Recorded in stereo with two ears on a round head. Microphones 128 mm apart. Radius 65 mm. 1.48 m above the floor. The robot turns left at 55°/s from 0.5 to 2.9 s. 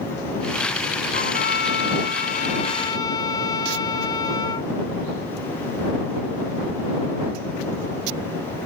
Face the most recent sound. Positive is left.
turn(degrees=25)